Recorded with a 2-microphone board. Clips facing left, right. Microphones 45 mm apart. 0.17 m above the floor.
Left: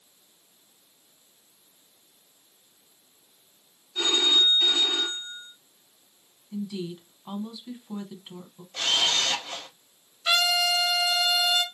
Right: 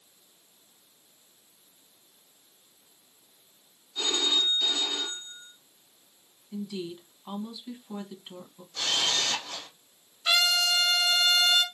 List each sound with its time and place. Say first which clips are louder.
4.0 s a phone ringing: left 5 dB; 40° left (ahead or behind), 1.5 m
6.5 s a woman speaking: left 2 dB; centre (ahead or behind), 1.0 m
8.7 s a camera shutter: left 3 dB; 50° left (ahead or behind), 2.5 m
10.2 s a trumpet: left 1 dB; 5° left (ahead or behind), 0.9 m